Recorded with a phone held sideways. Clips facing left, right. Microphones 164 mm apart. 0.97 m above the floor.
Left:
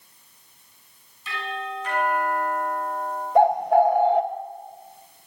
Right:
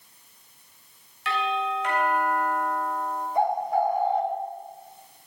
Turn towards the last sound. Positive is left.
turn(degrees=65)  # may be behind; listen again after turning